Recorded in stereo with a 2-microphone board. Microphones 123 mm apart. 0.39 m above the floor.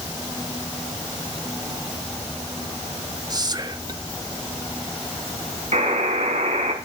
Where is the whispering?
35° right (ahead or behind), 1.1 m.